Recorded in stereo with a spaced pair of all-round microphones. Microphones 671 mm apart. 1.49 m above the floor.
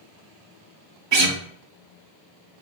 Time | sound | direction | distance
1.1 | a guitar | 40° right (ahead or behind) | 0.8 m